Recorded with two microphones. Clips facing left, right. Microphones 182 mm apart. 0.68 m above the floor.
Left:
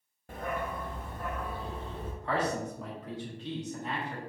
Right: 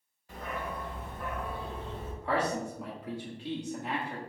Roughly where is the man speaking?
Centre.